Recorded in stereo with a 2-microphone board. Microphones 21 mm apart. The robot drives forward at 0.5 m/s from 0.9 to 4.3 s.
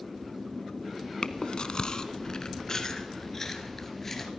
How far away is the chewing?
About 0.9 m.